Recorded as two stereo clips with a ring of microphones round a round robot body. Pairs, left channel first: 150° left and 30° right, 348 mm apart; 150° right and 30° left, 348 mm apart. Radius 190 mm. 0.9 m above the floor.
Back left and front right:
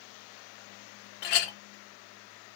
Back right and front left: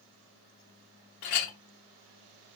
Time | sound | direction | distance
1.2 | a clink | 165° left | 0.6 m